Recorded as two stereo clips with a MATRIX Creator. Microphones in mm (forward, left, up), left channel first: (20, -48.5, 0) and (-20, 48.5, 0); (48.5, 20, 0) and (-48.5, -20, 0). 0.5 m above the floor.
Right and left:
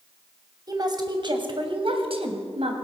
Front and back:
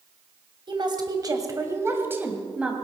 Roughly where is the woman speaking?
Behind.